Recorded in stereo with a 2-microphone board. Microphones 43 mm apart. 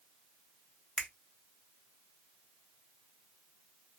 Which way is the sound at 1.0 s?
25° left (ahead or behind).